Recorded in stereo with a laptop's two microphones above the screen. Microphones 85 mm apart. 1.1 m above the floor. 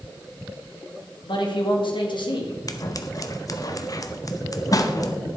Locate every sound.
1.3 s a man speaking: 70° left (ahead or behind), 2 m
2.7 s scissors: 45° left (ahead or behind), 0.7 m